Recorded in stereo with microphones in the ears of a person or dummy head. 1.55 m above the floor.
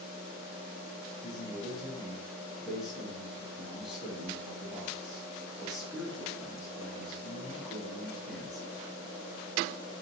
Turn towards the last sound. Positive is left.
turn(degrees=0)  # may be behind; listen again after turning